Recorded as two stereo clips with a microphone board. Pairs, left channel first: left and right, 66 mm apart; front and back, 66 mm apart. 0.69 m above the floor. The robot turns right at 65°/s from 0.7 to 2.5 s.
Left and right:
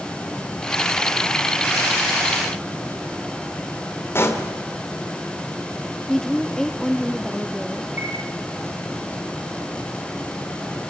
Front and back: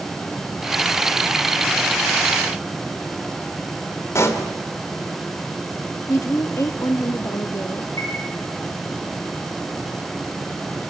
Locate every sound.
4.2 s a pop: 40° left, 2.5 m
6.1 s a woman speaking: 10° left, 1.3 m
8.0 s a chime: 30° right, 9 m